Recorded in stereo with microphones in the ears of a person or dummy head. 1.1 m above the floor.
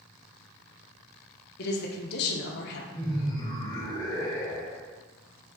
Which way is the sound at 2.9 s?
25° left (ahead or behind).